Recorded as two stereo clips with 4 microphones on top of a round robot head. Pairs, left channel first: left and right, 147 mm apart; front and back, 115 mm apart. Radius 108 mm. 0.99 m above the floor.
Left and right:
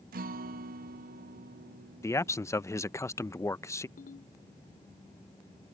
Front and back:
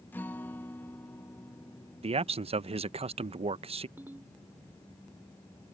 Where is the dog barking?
No dog barking in this recording.